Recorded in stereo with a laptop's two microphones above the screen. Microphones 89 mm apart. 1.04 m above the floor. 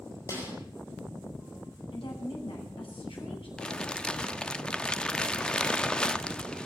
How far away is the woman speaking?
About 10 m.